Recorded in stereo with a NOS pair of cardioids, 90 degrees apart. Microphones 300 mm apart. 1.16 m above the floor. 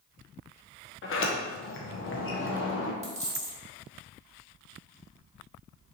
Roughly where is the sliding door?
Ahead left.